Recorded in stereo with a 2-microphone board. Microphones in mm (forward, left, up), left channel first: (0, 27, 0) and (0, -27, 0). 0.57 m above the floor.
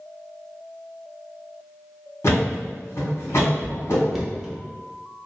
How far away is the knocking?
About 0.6 m.